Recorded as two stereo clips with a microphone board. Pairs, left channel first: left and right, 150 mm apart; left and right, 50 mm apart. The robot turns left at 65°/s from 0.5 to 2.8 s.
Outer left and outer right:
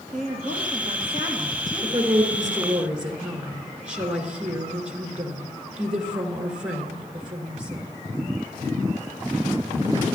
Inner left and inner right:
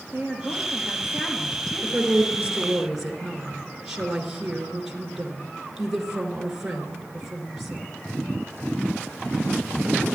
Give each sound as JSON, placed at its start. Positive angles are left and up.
{"t": 0.1, "sound": "a woman speaking", "azimuth_deg": -105, "distance_m": 2.5}
{"t": 1.8, "sound": "a woman speaking", "azimuth_deg": -105, "distance_m": 1.9}